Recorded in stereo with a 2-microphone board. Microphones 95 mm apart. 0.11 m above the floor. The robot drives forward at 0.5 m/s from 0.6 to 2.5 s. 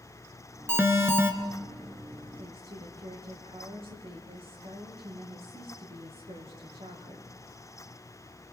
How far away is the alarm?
About 1.6 m.